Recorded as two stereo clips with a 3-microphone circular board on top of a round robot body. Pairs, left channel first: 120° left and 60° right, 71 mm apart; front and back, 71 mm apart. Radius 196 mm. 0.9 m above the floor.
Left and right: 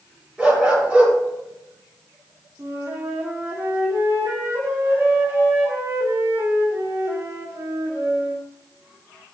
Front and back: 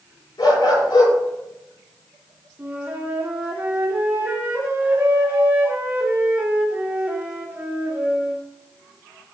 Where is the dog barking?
15° left, 8.5 m.